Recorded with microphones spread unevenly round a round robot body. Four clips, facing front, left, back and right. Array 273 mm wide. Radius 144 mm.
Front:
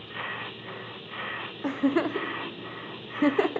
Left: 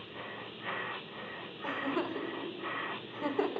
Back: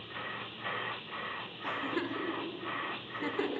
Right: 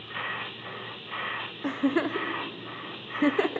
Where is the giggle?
40° right, 0.8 m.